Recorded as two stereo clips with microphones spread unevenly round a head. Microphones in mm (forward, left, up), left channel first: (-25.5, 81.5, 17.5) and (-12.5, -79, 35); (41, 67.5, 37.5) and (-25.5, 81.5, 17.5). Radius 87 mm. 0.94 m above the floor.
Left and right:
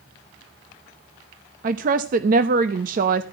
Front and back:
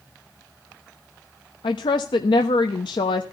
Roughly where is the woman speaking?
Ahead right.